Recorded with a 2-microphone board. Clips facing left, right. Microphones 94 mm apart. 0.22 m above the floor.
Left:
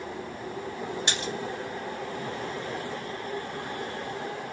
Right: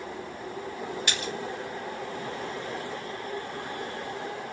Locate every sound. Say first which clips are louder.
1.1 s a splash: left 1 dB; 30° left (ahead or behind), 0.6 m